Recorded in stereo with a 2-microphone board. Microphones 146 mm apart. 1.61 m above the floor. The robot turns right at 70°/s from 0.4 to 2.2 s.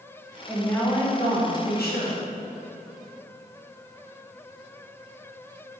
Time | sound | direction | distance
0.5 | a woman speaking | 5° right | 1.8 m